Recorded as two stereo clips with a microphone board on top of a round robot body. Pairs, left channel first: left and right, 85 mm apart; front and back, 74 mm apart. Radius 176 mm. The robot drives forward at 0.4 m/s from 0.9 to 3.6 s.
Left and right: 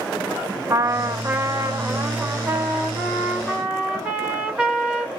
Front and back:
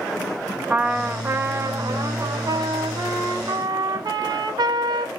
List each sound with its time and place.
0.7 s a trumpet: 115° right, 0.7 m; by 5.1 s 165° right, 1.4 m